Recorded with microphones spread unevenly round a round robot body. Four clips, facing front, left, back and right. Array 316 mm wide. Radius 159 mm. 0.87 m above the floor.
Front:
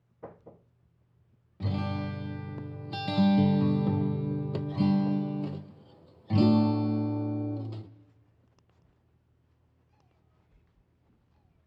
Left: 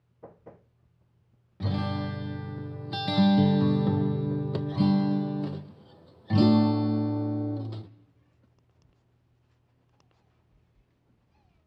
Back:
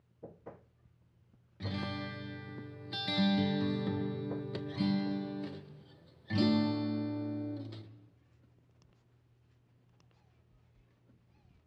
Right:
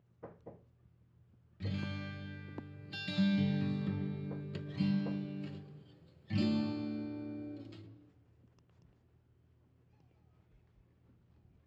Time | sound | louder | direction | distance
1.6 | a guitar | left 11 dB, front 6 dB | 65° left | 0.7 m